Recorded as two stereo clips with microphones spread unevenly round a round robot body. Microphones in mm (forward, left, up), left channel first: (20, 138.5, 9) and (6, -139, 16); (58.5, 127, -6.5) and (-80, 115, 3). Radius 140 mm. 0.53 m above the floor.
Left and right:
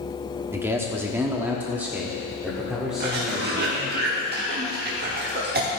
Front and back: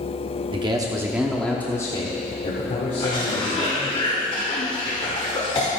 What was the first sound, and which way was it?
A man speaking, 170° right.